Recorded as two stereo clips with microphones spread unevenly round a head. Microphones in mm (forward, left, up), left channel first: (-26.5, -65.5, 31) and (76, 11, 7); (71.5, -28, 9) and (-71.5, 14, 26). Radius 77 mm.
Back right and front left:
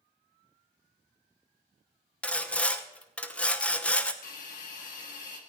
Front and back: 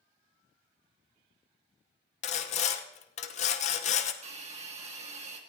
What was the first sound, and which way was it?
Sawing, 65° right.